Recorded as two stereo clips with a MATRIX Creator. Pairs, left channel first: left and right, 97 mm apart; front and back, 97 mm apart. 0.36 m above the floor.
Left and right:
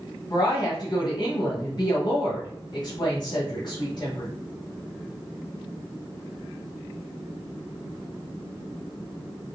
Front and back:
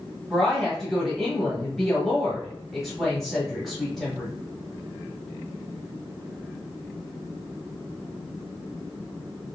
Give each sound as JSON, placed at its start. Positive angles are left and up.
{"t": 0.3, "sound": "a woman speaking", "azimuth_deg": 85, "distance_m": 1.5}